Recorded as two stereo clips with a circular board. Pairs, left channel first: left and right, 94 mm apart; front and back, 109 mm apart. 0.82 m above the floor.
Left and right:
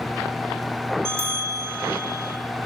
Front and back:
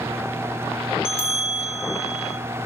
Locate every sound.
1.1 s a bell: 25° right, 0.9 m